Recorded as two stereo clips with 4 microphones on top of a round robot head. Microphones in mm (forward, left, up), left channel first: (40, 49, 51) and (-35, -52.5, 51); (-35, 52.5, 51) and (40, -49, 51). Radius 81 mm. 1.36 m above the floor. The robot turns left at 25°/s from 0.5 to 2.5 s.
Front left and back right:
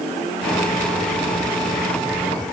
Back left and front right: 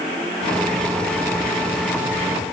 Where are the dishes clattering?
I don't hear dishes clattering.